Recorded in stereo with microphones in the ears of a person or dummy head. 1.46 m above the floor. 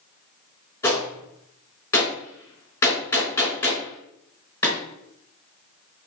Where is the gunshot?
20° left (ahead or behind), 4.5 m.